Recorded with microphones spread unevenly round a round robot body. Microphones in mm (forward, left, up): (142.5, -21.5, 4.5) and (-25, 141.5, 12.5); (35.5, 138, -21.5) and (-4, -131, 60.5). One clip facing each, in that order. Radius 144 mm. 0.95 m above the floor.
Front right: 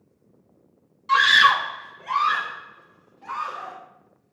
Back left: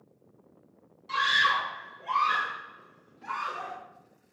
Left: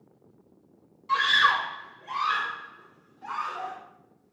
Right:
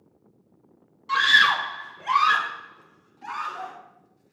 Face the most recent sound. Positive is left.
turn(degrees=-155)